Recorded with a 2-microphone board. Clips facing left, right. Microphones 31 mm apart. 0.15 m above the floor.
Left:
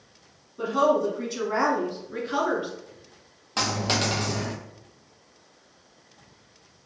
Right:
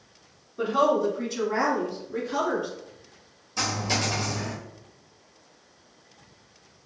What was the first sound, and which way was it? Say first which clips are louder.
A woman speaking: even; 25° right (ahead or behind).